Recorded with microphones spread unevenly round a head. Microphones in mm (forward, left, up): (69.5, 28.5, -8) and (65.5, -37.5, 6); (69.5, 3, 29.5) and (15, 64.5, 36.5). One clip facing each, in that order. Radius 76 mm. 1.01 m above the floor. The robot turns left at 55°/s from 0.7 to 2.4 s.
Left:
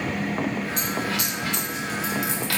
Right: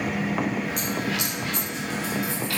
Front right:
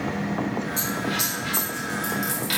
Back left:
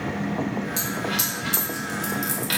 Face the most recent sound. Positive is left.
turn(degrees=95)